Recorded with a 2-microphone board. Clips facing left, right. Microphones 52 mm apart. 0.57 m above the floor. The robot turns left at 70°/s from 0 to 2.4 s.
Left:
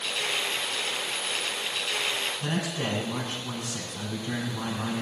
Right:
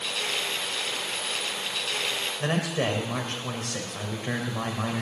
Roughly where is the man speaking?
Right.